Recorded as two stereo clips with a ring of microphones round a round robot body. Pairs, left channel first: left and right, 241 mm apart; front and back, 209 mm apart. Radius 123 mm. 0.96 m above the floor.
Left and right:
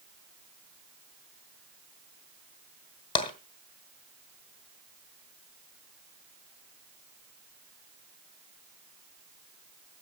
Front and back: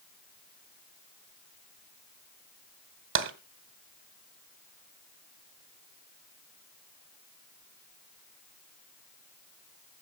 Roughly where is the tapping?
Behind.